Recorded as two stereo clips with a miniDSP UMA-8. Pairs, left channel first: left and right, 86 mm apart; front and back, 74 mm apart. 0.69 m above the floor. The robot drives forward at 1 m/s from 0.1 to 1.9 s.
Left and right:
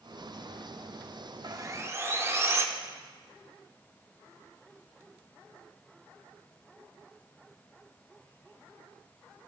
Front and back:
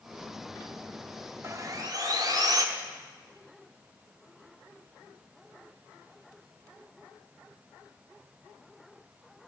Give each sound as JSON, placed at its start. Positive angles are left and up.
{"t": 1.4, "sound": "sawing", "azimuth_deg": -125, "distance_m": 0.6}